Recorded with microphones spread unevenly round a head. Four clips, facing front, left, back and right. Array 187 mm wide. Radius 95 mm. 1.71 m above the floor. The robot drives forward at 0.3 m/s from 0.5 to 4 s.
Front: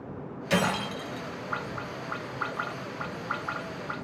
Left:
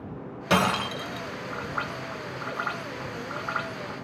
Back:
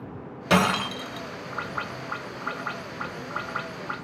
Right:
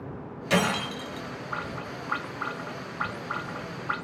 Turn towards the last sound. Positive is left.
turn(degrees=155)